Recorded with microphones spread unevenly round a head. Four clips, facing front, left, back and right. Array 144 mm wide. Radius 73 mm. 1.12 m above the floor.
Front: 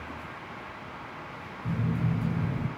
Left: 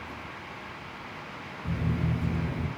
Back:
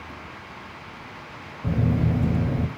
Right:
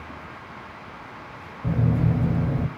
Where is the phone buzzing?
140° right, 2 m.